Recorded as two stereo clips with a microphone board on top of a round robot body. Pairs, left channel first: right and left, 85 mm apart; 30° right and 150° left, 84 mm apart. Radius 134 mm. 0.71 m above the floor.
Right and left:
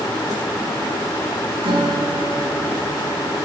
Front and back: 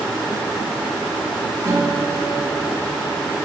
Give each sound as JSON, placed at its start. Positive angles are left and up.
{"t": 1.6, "sound": "a guitar", "azimuth_deg": 105, "distance_m": 6.0}